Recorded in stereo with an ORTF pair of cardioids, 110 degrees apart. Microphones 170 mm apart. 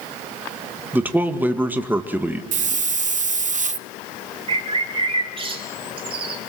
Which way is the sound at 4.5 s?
35° right.